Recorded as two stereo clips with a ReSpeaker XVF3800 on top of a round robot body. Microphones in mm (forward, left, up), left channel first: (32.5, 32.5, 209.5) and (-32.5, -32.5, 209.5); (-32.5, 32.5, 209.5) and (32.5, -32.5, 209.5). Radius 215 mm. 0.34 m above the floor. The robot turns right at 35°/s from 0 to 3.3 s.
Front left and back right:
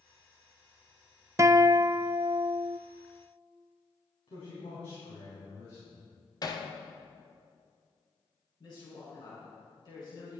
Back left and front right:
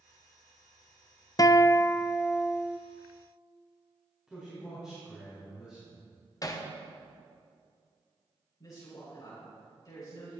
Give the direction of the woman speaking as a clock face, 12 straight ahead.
9 o'clock.